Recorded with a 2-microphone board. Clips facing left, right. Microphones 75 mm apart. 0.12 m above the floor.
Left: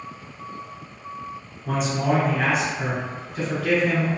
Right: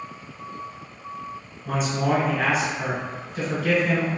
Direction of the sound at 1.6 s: Centre (ahead or behind).